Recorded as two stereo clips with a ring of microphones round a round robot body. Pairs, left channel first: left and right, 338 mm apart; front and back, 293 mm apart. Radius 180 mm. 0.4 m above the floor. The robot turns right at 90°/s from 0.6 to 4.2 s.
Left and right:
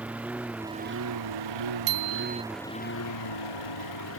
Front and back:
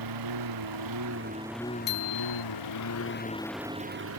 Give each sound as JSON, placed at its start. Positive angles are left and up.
{"t": 0.0, "sound": "a lawn mower", "azimuth_deg": -175}
{"t": 1.9, "sound": "a bicycle bell", "azimuth_deg": -65}